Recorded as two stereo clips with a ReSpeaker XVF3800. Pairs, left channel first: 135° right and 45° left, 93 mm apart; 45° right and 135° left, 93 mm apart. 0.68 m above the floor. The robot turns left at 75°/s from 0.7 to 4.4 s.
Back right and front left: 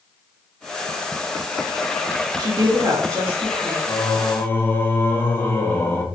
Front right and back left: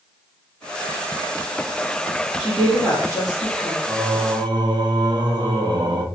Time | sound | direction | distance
2.4 | a woman speaking | 55° left | 0.9 m
3.9 | singing | 160° right | 0.5 m